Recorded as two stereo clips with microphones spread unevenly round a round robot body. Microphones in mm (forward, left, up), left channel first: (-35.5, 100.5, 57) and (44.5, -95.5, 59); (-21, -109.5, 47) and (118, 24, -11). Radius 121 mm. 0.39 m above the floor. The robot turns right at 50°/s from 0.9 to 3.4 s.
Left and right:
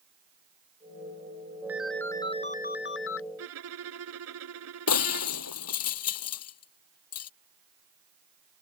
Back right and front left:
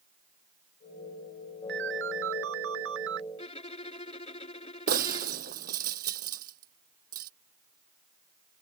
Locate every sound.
1.7 s a ringtone: 15° left; by 3.2 s 90° left
3.4 s a violin: 80° right
4.9 s breaking glass: 100° left